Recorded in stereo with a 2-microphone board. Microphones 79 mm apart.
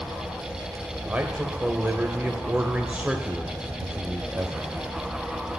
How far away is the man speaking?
About 0.9 m.